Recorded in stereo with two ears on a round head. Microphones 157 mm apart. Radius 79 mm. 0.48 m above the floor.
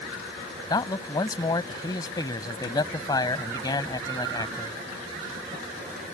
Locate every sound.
0.7 s a man speaking: 20° left (ahead or behind)